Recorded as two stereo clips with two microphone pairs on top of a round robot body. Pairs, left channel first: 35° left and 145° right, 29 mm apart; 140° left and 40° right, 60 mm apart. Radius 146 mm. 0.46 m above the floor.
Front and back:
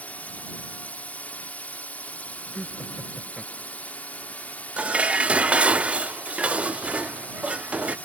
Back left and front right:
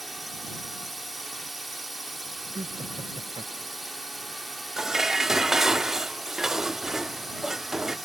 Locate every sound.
0.0 s a drone: 40° left
2.5 s laughter: 60° right
4.8 s dishes clattering: 120° right